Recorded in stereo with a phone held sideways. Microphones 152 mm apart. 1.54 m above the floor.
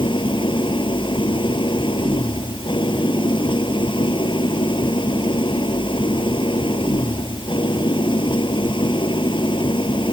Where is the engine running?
35° left (ahead or behind).